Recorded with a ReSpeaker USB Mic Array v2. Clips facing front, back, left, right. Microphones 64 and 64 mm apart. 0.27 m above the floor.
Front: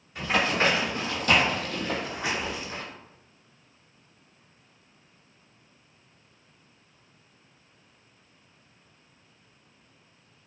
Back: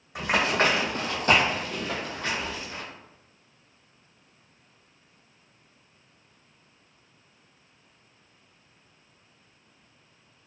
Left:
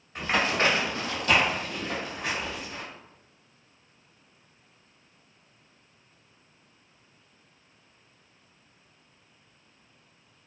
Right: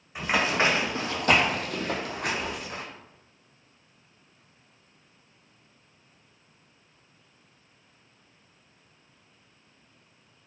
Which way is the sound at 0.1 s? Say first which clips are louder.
Back 1 dB, right 1 dB; 170° right.